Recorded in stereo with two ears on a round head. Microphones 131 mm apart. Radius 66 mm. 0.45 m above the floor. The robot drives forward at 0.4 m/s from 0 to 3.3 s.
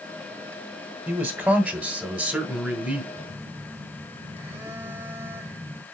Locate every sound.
1.1 s a man speaking: 5° right (ahead or behind), 1.6 m; by 3.0 s centre (ahead or behind), 2.5 m
3.1 s a phone buzzing: 15° right (ahead or behind), 1.3 m